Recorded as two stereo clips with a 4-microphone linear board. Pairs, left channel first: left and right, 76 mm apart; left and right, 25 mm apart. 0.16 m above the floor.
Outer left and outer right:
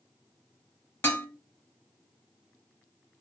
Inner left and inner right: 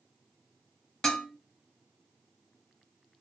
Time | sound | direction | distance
1.0 | dishes clattering | 25° left (ahead or behind) | 0.8 m